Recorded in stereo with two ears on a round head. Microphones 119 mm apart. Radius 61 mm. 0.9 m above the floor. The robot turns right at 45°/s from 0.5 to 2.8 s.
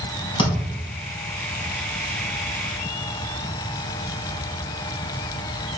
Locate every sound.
0.4 s a thud: 35° left (ahead or behind), 4 m; by 0.8 s 50° left (ahead or behind), 4 m